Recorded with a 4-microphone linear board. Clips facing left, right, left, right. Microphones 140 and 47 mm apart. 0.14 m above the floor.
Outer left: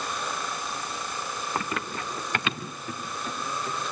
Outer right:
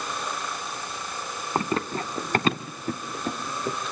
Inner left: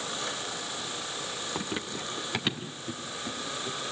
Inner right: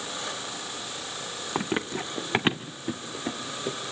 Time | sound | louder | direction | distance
1.6 | running footsteps | outer right 7 dB, inner right 9 dB | 30° right (ahead or behind) | 1.6 m